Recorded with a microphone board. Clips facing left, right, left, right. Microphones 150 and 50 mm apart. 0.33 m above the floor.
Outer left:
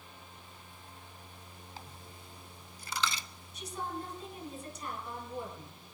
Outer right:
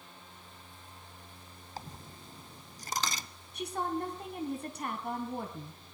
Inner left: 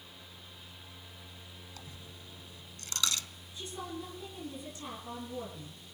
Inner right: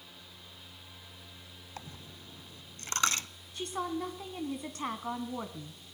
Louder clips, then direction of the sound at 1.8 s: Outer right 7 dB, inner right 3 dB; 40° right (ahead or behind).